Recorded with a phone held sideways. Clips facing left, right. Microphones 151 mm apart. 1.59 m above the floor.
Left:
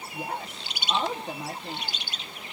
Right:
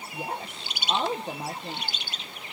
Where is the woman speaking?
30° right (ahead or behind), 0.9 m.